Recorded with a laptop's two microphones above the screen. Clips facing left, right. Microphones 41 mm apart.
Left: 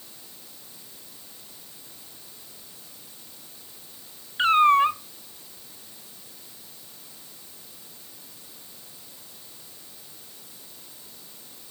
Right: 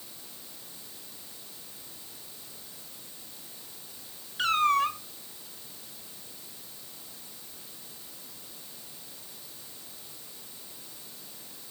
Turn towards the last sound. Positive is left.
turn(degrees=25)  # may be behind; listen again after turning